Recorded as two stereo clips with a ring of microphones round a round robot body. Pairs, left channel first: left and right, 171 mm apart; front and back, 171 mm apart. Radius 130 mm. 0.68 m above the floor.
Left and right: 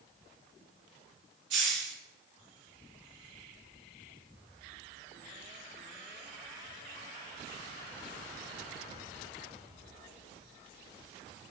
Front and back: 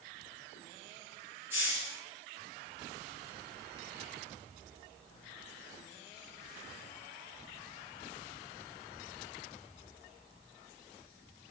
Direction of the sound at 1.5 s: 100° right.